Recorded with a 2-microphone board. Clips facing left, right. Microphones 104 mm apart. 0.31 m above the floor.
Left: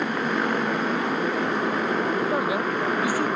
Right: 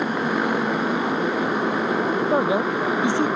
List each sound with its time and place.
0.0 s a motorcycle: 5° right (ahead or behind)
2.3 s a man speaking: 25° right (ahead or behind)